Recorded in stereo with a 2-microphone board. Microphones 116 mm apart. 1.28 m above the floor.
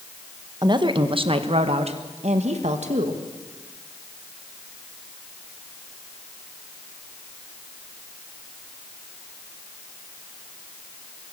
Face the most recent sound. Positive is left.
turn(degrees=-80)